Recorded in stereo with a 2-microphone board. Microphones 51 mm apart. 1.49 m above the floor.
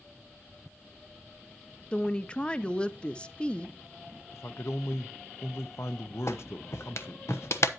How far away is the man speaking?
About 0.7 m.